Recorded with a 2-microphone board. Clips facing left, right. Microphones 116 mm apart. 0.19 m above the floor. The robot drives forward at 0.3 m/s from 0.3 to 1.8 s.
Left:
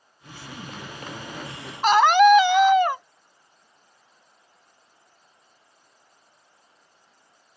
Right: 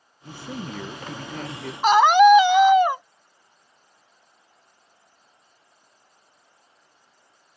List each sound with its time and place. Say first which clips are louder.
0.2 s a man speaking: right 6 dB; 65° right (ahead or behind); by 1.7 s 60° right (ahead or behind)
1.8 s a scream: right 2 dB; 10° right (ahead or behind)